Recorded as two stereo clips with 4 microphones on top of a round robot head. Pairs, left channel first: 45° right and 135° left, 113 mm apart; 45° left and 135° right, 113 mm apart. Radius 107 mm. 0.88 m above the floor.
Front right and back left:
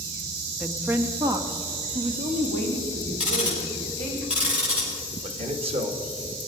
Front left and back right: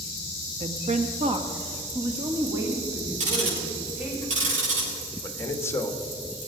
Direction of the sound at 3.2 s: 145° right.